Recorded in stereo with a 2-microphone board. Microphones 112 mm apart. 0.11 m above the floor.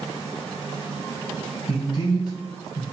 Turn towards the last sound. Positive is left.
turn(degrees=35)  # may be behind; listen again after turning